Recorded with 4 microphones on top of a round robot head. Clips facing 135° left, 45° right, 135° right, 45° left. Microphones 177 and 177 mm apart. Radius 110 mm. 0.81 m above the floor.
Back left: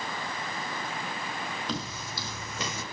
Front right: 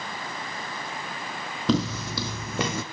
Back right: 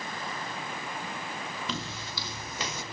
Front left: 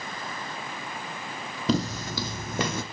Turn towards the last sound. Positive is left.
turn(degrees=0)